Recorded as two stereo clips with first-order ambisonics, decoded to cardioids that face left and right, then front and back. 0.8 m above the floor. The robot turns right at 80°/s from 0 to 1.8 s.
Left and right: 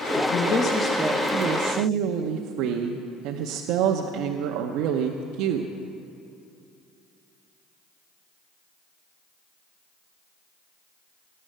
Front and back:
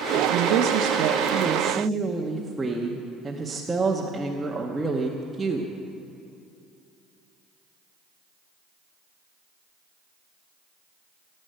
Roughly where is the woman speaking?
Behind left.